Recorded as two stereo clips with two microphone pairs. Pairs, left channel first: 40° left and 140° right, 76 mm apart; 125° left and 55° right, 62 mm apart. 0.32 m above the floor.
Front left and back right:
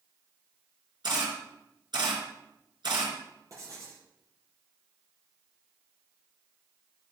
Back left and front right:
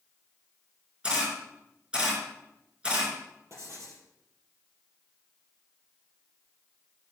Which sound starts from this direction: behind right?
A camera shutter, at 1.0 s.